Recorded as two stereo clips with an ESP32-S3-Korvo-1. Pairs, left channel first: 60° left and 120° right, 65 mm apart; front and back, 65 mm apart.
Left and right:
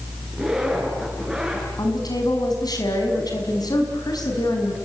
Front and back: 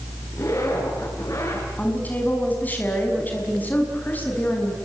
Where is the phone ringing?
No phone ringing in this recording.